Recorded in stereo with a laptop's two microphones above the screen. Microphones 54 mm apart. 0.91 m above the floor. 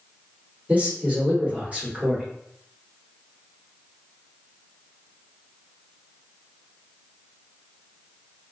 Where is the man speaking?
30° right (ahead or behind), 1.2 m.